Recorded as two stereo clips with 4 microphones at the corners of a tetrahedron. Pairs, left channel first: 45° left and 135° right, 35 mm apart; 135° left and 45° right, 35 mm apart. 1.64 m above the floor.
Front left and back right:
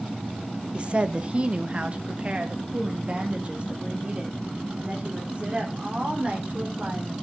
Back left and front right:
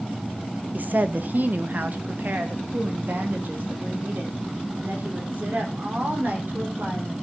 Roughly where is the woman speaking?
Right.